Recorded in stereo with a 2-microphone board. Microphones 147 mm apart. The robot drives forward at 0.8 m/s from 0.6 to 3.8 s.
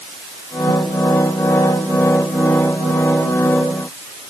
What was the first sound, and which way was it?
Only background noise.